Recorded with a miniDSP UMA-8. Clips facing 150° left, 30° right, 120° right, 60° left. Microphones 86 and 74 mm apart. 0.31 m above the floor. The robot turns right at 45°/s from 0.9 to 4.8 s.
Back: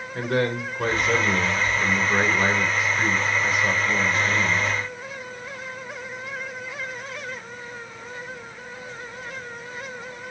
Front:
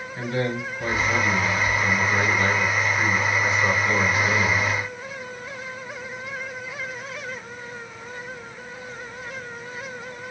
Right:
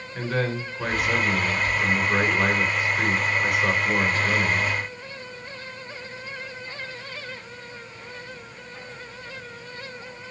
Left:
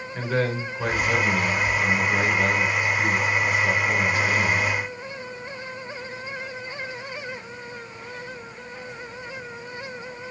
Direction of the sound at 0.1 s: 150° left.